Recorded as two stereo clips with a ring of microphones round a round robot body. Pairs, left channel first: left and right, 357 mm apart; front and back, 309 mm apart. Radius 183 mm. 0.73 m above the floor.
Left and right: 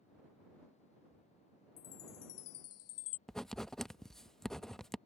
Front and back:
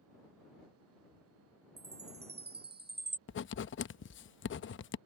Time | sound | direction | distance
1.8 | a chime | 125° left | ?
3.3 | writing | straight ahead | ?